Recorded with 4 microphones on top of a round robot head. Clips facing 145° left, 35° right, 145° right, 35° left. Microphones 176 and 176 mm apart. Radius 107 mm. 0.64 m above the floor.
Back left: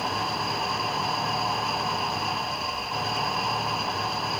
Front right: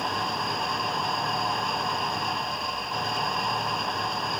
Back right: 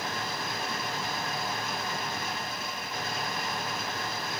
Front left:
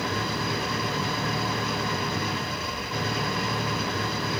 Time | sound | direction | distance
0.0 | an engine running | 55° left | ?